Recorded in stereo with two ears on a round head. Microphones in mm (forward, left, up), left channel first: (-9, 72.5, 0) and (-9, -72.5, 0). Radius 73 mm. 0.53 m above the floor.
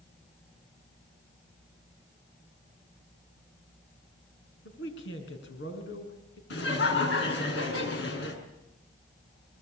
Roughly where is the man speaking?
Left.